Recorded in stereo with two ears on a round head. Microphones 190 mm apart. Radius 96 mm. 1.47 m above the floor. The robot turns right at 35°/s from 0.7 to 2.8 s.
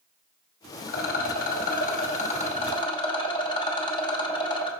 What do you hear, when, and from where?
0.9 s a rattle: 80° left, 1.2 m; by 4.7 s 150° left, 1.2 m